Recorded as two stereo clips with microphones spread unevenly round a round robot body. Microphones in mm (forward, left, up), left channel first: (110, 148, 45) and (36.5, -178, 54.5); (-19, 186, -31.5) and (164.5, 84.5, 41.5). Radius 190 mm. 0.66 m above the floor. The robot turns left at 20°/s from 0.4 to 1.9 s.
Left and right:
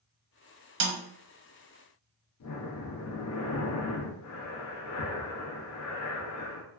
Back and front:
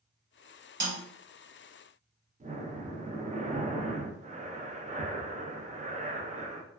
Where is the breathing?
40° left, 0.6 m.